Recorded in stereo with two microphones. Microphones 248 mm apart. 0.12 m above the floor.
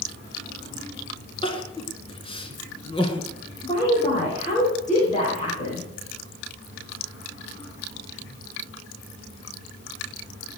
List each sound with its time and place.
1.4 s crying: 20° left (ahead or behind), 1.8 m
3.6 s a woman speaking: 30° left (ahead or behind), 9 m